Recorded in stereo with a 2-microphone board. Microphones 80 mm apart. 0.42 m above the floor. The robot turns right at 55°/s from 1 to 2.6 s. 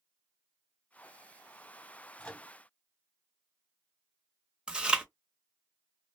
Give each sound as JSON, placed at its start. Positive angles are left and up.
{"t": 2.2, "sound": "a microwave", "side_deg": 20, "distance_m": 0.7}
{"t": 4.7, "sound": "chewing", "side_deg": -10, "distance_m": 0.6}